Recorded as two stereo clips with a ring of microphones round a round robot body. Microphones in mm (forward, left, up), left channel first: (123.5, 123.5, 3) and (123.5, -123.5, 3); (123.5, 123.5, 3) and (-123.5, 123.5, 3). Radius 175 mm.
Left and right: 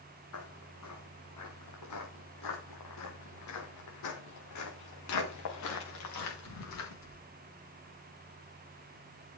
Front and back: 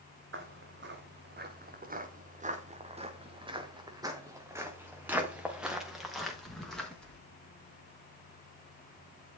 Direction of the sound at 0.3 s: 140° left.